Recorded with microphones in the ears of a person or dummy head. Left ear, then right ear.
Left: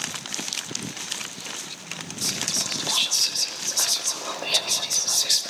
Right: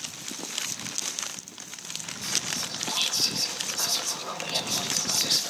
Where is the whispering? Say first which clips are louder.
Left 4 dB; 65° left (ahead or behind), 0.8 m.